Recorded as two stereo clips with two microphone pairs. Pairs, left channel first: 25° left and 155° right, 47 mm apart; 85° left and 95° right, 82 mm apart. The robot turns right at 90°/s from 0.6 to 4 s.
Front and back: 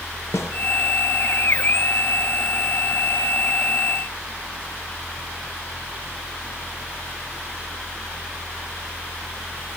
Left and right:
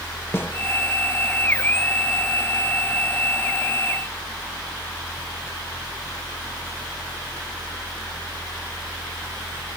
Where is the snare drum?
25° left, 0.7 m.